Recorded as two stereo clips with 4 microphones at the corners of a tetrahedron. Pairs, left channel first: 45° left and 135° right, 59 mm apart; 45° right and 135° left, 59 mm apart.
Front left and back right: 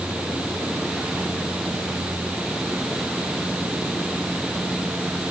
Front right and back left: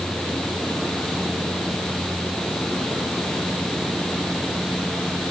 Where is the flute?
I don't hear a flute.